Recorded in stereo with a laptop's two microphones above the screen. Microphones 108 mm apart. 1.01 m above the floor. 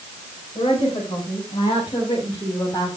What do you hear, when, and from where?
0.6 s a woman speaking: 55° left (ahead or behind), 6.5 m; by 3.0 s 35° left (ahead or behind), 4 m